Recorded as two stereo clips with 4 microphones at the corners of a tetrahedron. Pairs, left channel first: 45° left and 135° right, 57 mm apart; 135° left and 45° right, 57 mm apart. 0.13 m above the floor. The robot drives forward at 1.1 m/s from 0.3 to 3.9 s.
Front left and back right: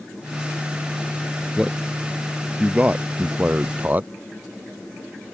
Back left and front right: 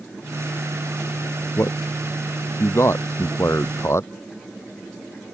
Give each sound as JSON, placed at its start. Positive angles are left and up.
{"t": 1.6, "sound": "a man speaking", "azimuth_deg": 155}